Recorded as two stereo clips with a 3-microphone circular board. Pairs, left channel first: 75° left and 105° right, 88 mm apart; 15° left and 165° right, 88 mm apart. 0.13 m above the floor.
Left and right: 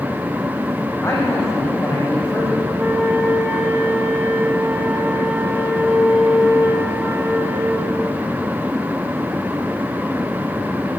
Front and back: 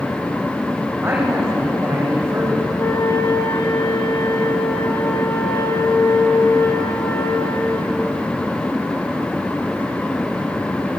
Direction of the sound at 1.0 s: 135° left.